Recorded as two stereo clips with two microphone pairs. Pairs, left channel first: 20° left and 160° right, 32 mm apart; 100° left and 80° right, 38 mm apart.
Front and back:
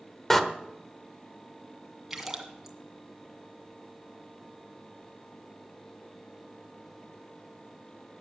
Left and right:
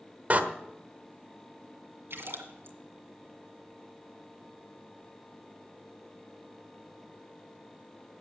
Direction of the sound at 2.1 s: 75° right.